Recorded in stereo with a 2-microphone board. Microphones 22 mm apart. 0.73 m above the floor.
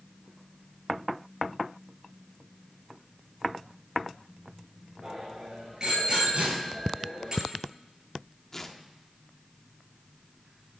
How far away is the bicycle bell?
About 8 m.